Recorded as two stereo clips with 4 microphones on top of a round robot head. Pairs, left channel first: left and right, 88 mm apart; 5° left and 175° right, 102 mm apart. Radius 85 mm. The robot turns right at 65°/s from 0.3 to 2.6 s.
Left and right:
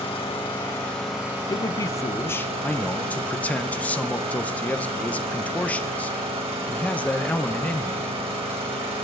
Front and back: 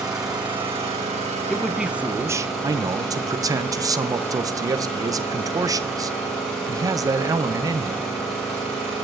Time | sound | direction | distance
0.0 | an engine running | 130° left | 4 m
1.5 | a man speaking | 85° left | 0.8 m